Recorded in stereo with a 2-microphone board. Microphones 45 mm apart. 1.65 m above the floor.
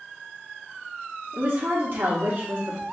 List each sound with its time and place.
1.3 s a woman speaking: 55° right (ahead or behind), 1.3 m